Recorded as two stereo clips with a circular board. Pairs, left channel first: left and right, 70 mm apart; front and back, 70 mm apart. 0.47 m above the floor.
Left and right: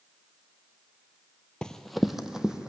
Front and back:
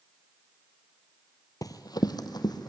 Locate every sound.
1.6 s running footsteps: 15° left, 0.8 m; by 2.7 s 10° right, 1.5 m